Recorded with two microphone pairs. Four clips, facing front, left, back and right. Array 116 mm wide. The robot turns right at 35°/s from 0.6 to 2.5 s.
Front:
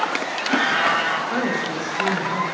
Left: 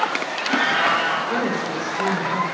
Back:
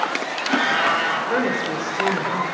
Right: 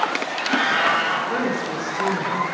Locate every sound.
1.3 s a woman speaking: 165° left, 4 m; by 2.5 s 155° right, 4 m